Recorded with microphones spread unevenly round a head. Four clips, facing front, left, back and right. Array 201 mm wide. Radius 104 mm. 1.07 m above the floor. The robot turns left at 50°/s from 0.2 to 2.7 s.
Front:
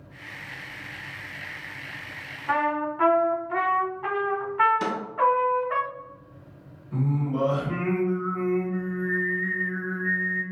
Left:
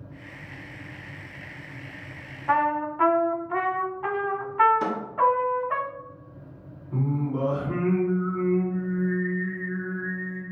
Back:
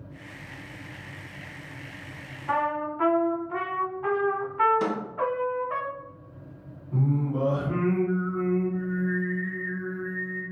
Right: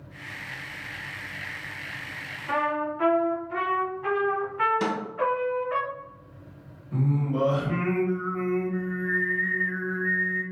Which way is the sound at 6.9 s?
40° right.